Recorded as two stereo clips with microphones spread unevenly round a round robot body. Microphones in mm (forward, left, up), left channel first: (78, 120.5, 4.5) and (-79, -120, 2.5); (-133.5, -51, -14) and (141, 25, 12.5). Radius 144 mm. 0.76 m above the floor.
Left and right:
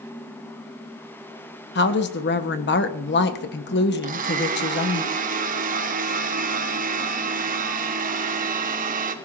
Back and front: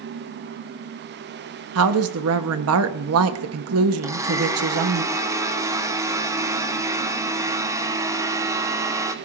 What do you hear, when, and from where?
1.8 s a woman speaking: 25° left, 1.1 m
4.0 s a blender: 65° right, 1.2 m